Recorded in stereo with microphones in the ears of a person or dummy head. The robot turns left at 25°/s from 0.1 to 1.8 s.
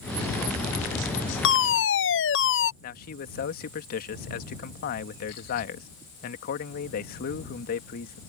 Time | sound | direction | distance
1.4 | a fire alarm | 60° left (ahead or behind) | ?
2.8 | a man speaking | 50° left (ahead or behind) | ?